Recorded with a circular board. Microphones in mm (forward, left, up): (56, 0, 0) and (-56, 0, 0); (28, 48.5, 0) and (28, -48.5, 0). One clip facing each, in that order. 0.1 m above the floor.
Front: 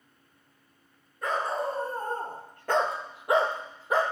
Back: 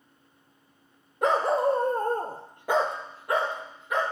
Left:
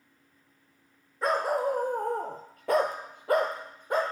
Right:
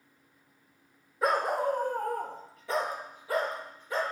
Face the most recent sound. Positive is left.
turn(degrees=55)